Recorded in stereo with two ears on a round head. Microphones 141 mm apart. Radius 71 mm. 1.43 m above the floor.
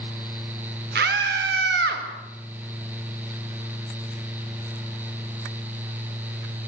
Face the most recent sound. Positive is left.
turn(degrees=-80)